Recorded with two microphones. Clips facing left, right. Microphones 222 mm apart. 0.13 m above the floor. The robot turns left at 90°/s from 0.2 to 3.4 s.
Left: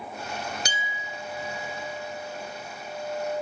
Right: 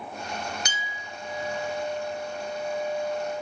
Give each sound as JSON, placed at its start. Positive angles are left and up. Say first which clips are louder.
{"t": 0.7, "sound": "a clink", "louder": "left 2 dB", "azimuth_deg": 40, "distance_m": 1.0}